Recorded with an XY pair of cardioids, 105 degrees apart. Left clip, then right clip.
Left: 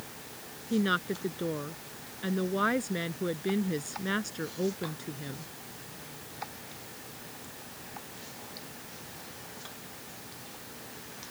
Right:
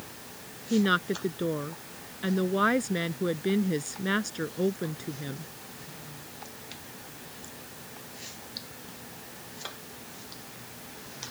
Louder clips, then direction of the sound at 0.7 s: Right 3 dB; 20° right.